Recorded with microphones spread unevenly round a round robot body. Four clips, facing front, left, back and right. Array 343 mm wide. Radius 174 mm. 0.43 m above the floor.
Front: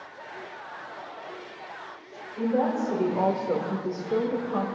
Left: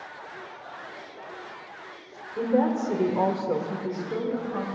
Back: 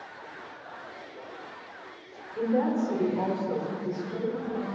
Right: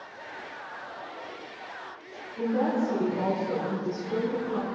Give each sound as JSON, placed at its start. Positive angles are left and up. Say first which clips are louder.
{"t": 2.4, "sound": "a woman speaking", "louder": "left 3 dB, front 1 dB", "azimuth_deg": 105, "distance_m": 1.7}